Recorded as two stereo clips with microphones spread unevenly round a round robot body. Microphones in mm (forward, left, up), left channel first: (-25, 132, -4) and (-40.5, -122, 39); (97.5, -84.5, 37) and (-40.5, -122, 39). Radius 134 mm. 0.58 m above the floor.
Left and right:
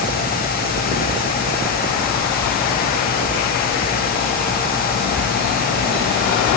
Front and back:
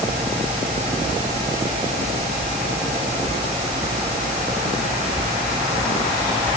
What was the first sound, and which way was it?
Only background noise.